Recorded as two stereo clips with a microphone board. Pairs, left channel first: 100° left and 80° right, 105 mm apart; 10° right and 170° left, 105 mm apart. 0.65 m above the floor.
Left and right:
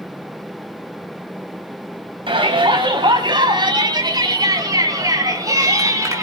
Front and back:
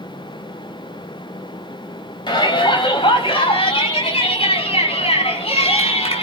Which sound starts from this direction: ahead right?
A shout, at 2.3 s.